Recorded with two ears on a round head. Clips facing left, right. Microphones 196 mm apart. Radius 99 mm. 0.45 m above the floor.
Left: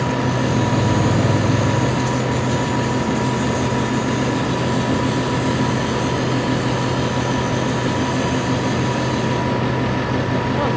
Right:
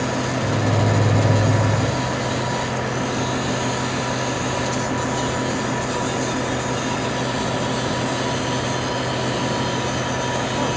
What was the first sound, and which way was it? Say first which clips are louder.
A microwave: left 3 dB; 30° left (ahead or behind).